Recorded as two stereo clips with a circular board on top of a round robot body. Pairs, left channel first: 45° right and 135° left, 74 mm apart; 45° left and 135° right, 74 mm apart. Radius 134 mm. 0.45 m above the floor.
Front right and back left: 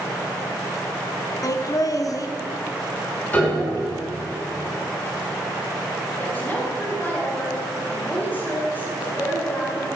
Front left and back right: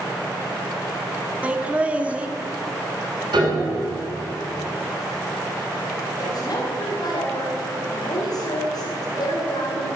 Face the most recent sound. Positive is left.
turn(degrees=20)